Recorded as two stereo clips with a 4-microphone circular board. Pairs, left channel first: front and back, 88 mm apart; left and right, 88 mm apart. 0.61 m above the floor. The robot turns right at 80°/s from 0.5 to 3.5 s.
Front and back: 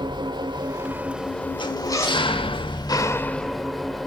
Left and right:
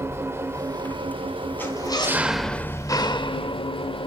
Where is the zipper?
20° left, 2.5 m; by 2.3 s 75° left, 2.5 m.